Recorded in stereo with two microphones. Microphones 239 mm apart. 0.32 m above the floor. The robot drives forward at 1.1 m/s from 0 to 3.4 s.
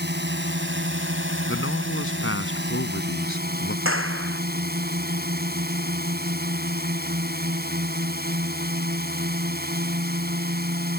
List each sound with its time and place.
0.0 s a drone: 50° right (ahead or behind); by 11.0 s 45° right (ahead or behind)
1.5 s a man speaking: 60° left (ahead or behind)
3.9 s a clap: 65° right (ahead or behind)